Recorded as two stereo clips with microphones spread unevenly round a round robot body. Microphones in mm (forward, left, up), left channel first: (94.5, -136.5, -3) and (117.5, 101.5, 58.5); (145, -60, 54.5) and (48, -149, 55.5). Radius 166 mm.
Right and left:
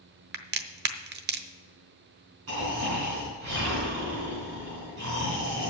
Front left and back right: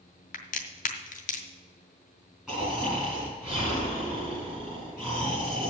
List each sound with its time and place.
0.3 s a crack: 50° left, 0.8 m
2.5 s snoring: 135° left, 4.5 m